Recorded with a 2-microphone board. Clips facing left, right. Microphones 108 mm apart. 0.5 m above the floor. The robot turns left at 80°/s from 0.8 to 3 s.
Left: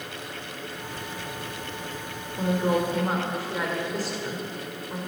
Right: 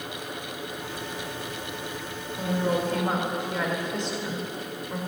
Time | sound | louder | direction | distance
2.4 | a woman speaking | left 2 dB | 40° left (ahead or behind) | 2.0 m